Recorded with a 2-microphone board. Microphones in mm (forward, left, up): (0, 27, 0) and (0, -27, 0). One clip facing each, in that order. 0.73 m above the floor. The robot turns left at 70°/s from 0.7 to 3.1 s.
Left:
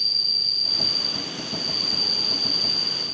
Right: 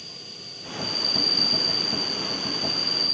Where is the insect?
155° right; by 3.1 s 35° left.